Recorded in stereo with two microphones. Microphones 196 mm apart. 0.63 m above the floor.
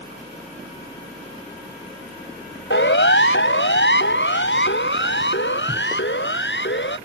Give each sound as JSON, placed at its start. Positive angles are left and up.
{"t": 2.7, "sound": "a siren", "side_deg": 75}